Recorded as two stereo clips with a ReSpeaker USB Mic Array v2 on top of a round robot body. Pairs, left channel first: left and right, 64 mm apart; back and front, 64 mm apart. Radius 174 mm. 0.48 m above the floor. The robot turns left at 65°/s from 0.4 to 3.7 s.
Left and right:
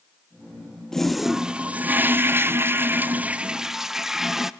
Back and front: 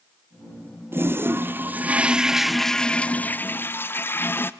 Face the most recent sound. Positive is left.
turn(degrees=-170)